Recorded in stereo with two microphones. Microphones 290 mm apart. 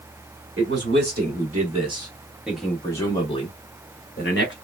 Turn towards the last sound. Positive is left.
turn(degrees=40)  # may be behind; listen again after turning